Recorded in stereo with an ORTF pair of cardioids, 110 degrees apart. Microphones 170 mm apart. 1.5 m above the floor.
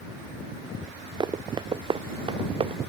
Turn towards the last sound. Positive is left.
turn(degrees=-35)